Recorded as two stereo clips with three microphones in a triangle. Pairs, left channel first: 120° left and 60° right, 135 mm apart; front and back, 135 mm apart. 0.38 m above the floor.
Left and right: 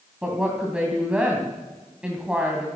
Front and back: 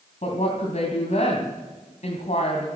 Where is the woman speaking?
20° left, 2.5 m.